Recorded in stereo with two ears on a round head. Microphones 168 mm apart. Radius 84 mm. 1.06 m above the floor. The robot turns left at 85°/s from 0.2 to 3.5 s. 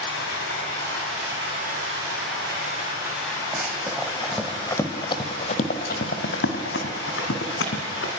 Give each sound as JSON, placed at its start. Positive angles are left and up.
{"t": 0.0, "sound": "running water", "azimuth_deg": 75, "distance_m": 7.5}
{"t": 3.5, "sound": "running footsteps", "side_deg": -15, "distance_m": 2.5}